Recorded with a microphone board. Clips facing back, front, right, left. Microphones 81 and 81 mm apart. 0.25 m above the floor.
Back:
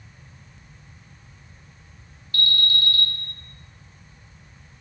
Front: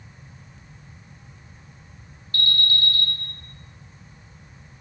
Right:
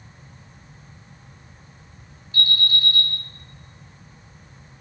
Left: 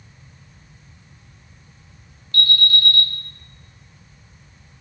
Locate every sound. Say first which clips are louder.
2.3 s an alarm: even, left 3 dB; 20° right, 3 m